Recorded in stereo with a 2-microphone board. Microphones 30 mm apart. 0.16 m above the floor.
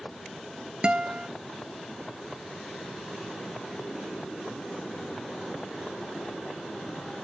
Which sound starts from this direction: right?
A guitar, at 0.8 s.